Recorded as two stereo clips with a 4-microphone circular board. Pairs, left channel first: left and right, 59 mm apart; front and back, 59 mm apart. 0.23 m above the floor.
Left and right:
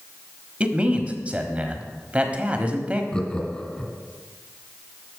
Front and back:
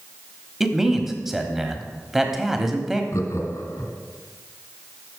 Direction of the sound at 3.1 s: 20° left.